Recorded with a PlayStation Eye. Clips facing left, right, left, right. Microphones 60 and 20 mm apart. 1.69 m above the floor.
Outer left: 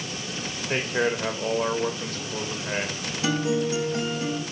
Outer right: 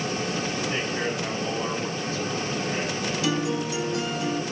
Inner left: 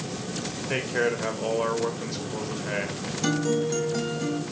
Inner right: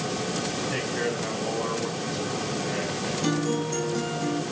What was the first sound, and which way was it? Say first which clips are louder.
A man speaking: outer left 3 dB, inner left 7 dB; 60° left (ahead or behind).